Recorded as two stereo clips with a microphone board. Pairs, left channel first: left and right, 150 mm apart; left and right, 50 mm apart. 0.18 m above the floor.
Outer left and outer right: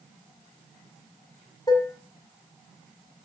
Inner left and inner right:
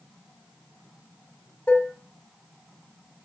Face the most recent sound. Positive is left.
turn(degrees=25)  # may be behind; listen again after turning